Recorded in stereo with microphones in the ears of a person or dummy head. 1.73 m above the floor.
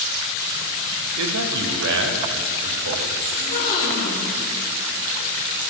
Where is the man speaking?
70° right (ahead or behind), 1.0 m.